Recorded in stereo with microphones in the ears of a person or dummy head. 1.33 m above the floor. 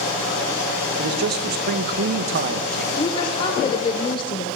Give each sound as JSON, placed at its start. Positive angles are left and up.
{"t": 1.0, "sound": "a man speaking", "side_deg": -50, "distance_m": 0.8}
{"t": 3.0, "sound": "a woman speaking", "side_deg": 25, "distance_m": 0.8}